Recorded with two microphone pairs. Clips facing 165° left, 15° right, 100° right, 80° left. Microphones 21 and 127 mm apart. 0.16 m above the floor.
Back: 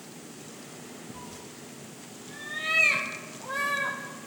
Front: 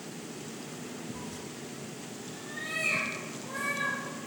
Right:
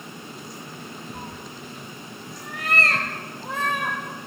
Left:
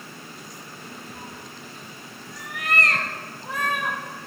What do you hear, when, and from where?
1.1 s a cat meowing: 120° right, 0.5 m; by 4.0 s 165° right, 2.5 m